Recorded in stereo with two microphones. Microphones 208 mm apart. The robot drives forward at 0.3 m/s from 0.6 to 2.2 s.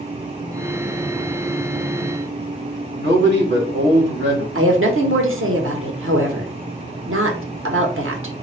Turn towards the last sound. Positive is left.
turn(degrees=-80)